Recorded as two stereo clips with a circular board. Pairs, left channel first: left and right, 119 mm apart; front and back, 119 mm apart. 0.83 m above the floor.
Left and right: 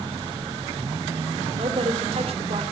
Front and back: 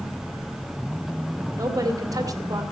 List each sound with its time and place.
1.5 s a woman speaking: 120° right, 2 m